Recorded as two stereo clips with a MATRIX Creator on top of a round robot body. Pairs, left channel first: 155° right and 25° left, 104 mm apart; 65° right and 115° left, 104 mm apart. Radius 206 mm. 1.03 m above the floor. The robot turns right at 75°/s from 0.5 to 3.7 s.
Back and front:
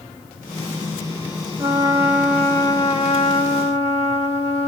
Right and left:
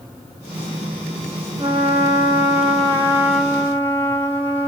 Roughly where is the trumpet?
Ahead left.